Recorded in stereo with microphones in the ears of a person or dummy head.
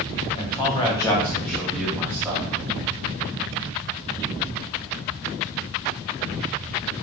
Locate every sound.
0.3 s a man speaking: 35° left (ahead or behind), 1.2 m; by 2.5 s 15° right (ahead or behind), 1.3 m